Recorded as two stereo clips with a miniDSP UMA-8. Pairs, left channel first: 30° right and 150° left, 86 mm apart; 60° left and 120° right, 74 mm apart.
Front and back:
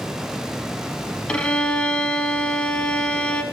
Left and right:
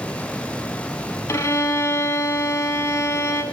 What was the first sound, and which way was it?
A violin, 40° left.